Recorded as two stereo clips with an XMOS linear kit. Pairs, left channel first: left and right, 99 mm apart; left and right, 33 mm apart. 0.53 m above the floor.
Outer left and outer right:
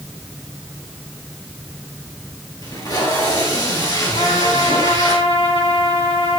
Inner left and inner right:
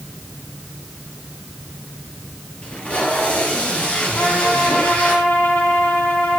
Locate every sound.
2.6 s tape being pulled: 40° left (ahead or behind), 2.5 m
4.2 s a trumpet: 65° left (ahead or behind), 2 m